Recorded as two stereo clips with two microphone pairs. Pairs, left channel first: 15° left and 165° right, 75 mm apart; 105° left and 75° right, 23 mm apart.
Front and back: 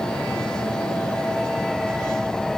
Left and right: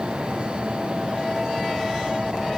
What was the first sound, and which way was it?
Only background noise.